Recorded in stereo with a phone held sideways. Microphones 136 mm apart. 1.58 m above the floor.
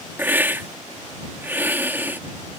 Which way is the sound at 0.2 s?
15° right (ahead or behind).